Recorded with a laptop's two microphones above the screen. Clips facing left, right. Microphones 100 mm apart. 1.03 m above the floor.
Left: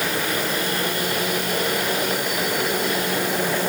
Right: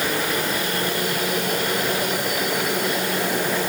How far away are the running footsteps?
I don't hear running footsteps.